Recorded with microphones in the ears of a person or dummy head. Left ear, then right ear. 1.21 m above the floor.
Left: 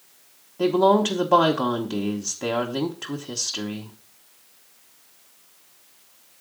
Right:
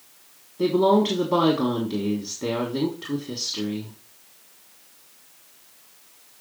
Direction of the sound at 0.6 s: 40° left (ahead or behind).